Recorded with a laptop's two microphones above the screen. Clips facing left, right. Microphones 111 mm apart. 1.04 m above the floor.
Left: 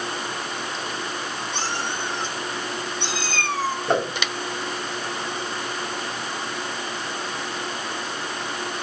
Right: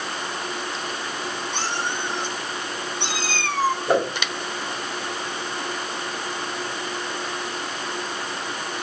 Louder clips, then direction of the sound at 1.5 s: Right 1 dB; 55° right (ahead or behind).